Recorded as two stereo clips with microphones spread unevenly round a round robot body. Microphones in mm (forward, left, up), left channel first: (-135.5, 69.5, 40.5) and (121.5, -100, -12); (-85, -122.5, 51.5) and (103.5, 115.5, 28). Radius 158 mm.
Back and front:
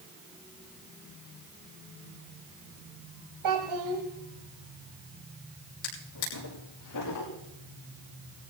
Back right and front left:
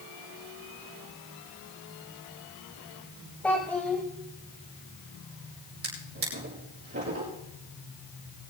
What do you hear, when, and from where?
3.4 s a child speaking: 40° right, 1.5 m
5.8 s a drawer: 110° left, 6 m